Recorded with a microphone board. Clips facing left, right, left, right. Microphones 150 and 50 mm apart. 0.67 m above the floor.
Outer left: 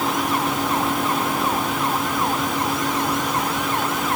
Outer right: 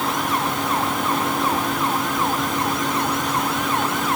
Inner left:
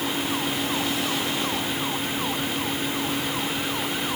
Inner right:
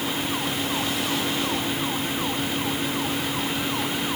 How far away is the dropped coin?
I don't hear a dropped coin.